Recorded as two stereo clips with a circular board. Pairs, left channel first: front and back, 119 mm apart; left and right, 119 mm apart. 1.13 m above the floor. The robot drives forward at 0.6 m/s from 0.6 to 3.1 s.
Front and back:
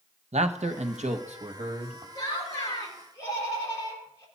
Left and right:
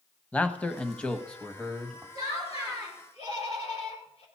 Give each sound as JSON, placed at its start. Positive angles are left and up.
{"t": 0.3, "sound": "a man speaking", "azimuth_deg": 170, "distance_m": 0.9}
{"t": 2.1, "sound": "laughter", "azimuth_deg": 55, "distance_m": 4.0}